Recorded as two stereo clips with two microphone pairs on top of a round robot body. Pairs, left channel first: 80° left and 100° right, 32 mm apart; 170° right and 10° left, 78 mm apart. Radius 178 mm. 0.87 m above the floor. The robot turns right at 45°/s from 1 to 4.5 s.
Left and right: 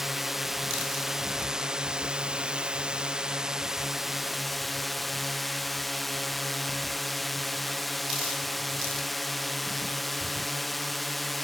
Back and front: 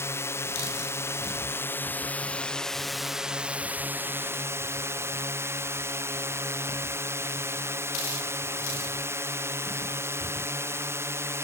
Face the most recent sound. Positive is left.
turn(degrees=-15)